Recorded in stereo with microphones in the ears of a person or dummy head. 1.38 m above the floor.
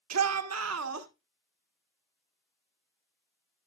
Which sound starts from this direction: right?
A shout, at 0.1 s.